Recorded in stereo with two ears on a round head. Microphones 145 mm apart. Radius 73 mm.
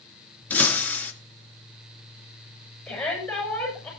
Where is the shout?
5° left (ahead or behind), 7.5 m.